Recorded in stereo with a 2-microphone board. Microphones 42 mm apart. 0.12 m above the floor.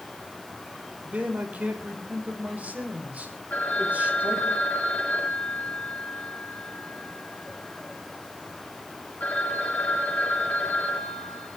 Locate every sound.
1.1 s a man speaking: 40° right (ahead or behind), 4.5 m
3.5 s a phone ringing: 45° left (ahead or behind), 6 m